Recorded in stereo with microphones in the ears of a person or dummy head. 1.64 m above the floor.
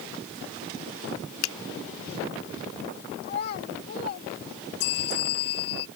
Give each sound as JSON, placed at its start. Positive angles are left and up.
{"t": 1.4, "sound": "a finger snap", "side_deg": 85}
{"t": 3.2, "sound": "a child speaking", "side_deg": 60}
{"t": 4.8, "sound": "a bell", "side_deg": 70}